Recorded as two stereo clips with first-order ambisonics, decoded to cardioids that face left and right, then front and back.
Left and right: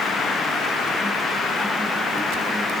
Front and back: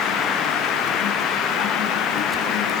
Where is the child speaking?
I don't hear a child speaking.